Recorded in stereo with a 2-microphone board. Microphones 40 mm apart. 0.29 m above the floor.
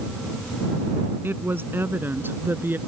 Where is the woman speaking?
65° right (ahead or behind); by 2.8 s 55° right (ahead or behind).